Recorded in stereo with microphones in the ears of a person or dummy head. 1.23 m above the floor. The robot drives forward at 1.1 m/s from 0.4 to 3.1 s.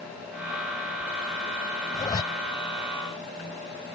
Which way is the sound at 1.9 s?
20° left (ahead or behind).